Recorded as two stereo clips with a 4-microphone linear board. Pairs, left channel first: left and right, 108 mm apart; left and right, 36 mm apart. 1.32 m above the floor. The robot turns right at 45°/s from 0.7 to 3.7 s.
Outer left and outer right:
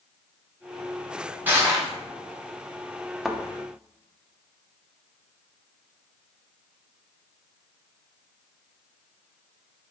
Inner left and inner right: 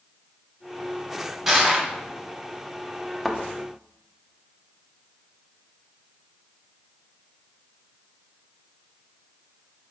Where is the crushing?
15° right (ahead or behind), 1.2 m; by 1.9 s 35° right (ahead or behind), 1.2 m.